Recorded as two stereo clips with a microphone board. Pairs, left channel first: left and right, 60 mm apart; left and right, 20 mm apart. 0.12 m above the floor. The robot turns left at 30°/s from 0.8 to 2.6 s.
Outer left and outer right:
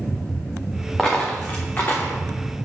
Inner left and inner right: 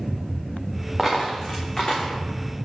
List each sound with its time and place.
1.0 s a dropped coin: 10° left (ahead or behind), 1.9 m; by 2.1 s 45° left (ahead or behind), 1.9 m